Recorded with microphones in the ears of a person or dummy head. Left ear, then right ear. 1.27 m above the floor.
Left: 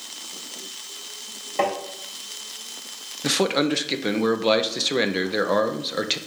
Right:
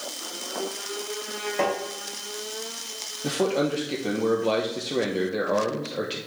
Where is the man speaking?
50° left (ahead or behind), 0.9 m.